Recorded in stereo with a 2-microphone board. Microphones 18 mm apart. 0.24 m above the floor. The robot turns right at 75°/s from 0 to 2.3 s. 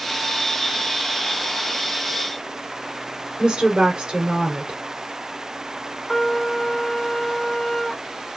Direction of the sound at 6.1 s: 20° left (ahead or behind).